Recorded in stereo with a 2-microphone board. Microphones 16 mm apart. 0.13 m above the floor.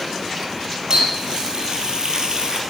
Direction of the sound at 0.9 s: 50° right (ahead or behind).